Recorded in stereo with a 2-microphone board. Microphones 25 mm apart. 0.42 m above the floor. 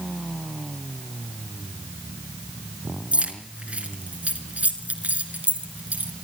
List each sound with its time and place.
3.1 s keys jangling: 55° right (ahead or behind), 3.5 m; by 6.1 s 80° right, 4 m